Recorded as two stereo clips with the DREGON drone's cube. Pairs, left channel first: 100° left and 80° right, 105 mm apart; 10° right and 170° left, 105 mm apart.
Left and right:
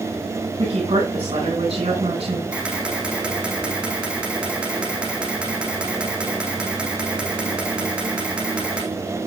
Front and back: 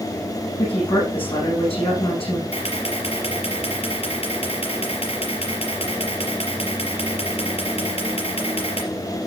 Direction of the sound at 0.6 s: 45° right.